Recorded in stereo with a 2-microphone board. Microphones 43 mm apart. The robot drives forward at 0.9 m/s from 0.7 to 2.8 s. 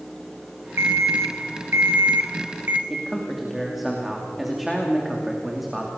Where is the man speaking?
Centre (ahead or behind), 2.5 m.